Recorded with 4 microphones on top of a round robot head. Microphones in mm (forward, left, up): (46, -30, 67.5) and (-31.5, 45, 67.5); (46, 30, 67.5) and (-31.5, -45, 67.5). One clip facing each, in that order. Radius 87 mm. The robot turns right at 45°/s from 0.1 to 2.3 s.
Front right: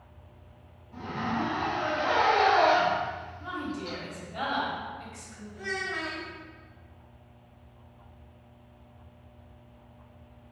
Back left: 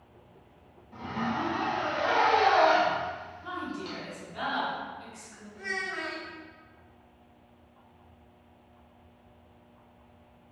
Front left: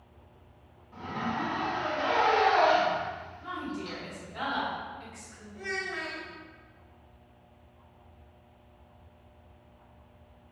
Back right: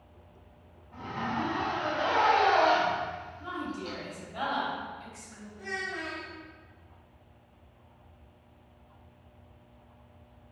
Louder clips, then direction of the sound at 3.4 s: Front right 2 dB, even; 80° right.